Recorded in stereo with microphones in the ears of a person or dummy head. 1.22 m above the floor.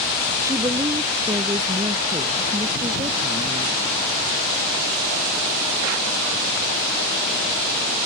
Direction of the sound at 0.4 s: 15° right (ahead or behind).